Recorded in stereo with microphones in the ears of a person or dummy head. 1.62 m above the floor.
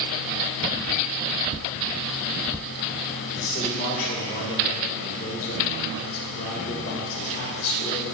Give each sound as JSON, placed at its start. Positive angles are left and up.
{"t": 3.4, "sound": "a man speaking", "side_deg": 45, "distance_m": 1.9}